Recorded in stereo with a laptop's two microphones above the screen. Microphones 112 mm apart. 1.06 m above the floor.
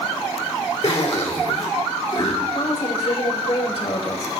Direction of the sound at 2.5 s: 65° left (ahead or behind).